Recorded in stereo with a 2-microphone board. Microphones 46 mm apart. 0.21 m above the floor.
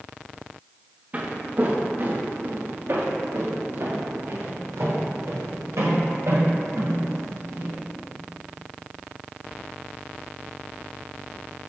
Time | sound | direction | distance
1.1 | footsteps | 30° right (ahead or behind) | 2.0 m